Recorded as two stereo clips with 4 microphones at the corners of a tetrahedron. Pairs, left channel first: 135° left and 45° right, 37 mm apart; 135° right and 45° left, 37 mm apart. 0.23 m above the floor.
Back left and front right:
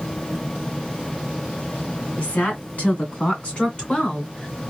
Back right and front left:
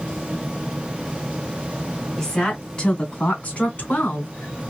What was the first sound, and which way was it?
A woman speaking, 160° left.